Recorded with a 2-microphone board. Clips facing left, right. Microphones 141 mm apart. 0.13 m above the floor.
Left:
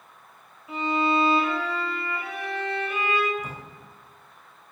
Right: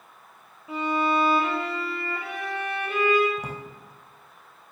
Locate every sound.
0.7 s a violin: 30° right (ahead or behind), 3.5 m
3.4 s a drawer: 70° right (ahead or behind), 3.5 m